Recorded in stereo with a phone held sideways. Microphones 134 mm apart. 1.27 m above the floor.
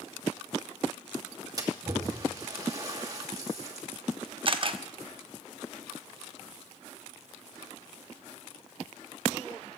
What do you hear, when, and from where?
1.6 s a splash: 25° right (ahead or behind), 2.5 m
4.5 s a camera shutter: 40° right (ahead or behind), 0.9 m